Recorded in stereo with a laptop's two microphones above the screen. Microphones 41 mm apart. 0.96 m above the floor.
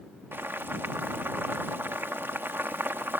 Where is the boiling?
65° right (ahead or behind).